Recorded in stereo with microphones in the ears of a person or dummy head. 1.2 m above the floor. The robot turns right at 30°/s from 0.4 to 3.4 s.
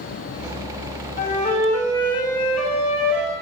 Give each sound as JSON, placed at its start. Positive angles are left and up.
{"t": 1.2, "sound": "a flute", "azimuth_deg": 135, "distance_m": 3.0}